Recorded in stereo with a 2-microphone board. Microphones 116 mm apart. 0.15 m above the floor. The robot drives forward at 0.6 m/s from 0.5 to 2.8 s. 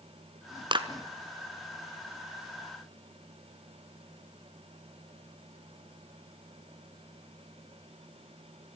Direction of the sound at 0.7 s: 45° right (ahead or behind).